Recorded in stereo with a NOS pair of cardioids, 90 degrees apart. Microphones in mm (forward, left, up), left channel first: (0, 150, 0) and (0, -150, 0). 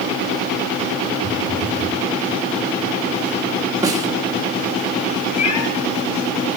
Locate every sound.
1.2 s a phone buzzing: 55° left, 2.5 m
3.8 s a snare drum: 10° right, 2 m
5.4 s a cat meowing: 65° left, 5 m